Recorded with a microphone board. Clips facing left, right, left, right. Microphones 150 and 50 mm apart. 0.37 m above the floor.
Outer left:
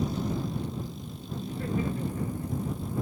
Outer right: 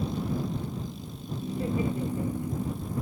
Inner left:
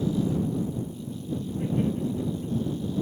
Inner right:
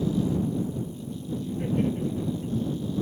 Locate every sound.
1.4 s laughter: 20° right (ahead or behind)